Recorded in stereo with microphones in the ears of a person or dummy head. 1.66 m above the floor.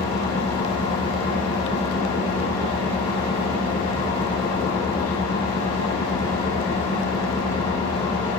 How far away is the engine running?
About 3.5 m.